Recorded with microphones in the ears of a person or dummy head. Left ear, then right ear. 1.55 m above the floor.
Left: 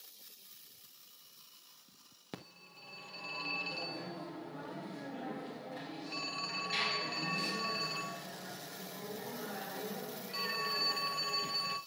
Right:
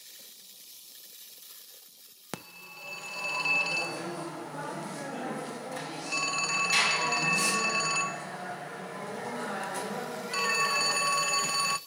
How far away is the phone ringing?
About 0.8 m.